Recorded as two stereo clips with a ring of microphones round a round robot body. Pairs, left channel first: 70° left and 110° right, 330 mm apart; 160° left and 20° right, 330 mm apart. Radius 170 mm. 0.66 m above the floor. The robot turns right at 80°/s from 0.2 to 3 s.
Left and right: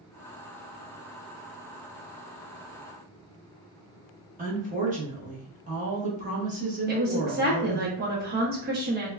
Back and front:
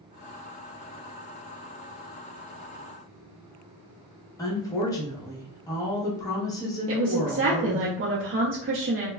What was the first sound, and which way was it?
A woman speaking, 140° right.